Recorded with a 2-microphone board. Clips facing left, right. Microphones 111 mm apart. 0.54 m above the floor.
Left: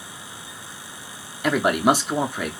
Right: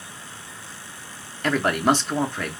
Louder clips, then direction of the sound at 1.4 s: Left 2 dB; 10° left (ahead or behind).